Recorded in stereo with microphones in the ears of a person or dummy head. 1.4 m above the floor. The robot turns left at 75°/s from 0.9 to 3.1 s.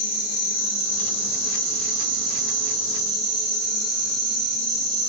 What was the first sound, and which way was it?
An insect, 15° left.